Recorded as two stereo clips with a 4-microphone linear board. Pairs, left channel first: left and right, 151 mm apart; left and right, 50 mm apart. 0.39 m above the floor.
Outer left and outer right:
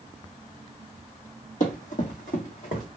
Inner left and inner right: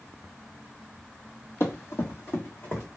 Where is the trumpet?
No trumpet in this recording.